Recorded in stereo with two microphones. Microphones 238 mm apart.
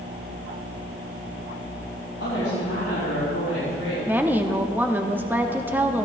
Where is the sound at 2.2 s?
80° left, 5 m; by 4.0 s 65° left (ahead or behind), 6 m.